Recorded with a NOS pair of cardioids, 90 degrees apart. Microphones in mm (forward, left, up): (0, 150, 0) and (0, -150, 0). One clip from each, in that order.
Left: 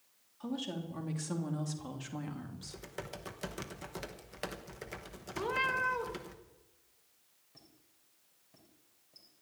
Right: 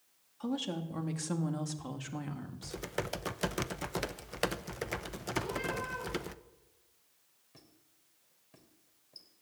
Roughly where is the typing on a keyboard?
Ahead right.